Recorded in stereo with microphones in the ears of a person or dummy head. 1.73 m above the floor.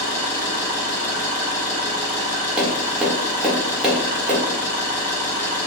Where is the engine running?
20° left (ahead or behind), 1.3 m.